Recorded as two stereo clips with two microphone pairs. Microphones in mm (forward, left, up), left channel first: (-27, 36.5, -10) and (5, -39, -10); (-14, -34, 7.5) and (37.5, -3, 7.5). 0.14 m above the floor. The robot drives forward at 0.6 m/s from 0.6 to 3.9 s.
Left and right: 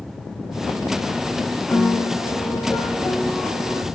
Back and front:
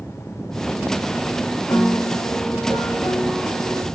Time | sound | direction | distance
1.7 | a piano | 175° right | 3 m